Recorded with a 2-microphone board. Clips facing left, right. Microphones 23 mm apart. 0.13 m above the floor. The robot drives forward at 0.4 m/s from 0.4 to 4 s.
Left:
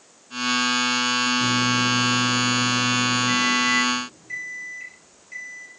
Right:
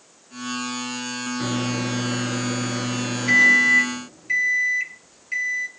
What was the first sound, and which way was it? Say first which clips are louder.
A microwave: left 5 dB; 55° right (ahead or behind).